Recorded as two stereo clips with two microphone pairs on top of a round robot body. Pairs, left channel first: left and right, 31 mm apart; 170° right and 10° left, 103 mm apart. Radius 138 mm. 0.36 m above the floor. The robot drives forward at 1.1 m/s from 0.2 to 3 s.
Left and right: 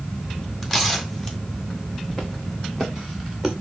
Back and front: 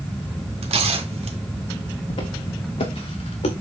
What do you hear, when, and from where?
0.6 s tearing paper: 10° left, 3.5 m; by 1.4 s 15° left, 2.5 m
2.1 s footsteps: 160° left, 3 m; by 3.5 s 175° left, 3 m